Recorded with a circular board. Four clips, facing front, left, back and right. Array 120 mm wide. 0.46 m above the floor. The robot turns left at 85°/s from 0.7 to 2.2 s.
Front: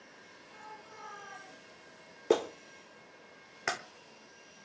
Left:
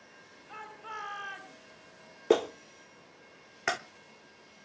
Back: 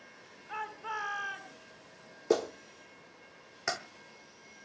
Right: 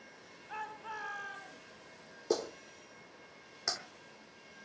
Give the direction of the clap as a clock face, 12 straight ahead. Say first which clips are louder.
Left 8 dB, even; 10 o'clock.